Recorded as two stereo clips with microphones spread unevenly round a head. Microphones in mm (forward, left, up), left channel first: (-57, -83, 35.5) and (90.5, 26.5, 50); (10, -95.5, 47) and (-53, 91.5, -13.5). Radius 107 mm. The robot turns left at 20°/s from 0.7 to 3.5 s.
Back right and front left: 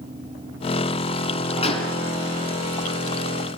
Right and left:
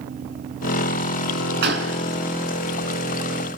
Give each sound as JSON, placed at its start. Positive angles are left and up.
{"t": 1.6, "sound": "a gunshot", "azimuth_deg": 150, "distance_m": 4.5}